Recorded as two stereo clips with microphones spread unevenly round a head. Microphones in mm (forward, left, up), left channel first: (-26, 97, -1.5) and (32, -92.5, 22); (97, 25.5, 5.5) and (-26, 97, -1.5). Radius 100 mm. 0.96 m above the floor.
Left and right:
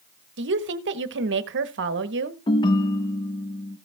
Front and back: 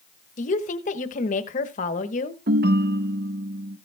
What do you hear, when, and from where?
0.4 s a woman speaking: 55° right, 1.0 m
2.5 s a ringtone: 175° left, 0.5 m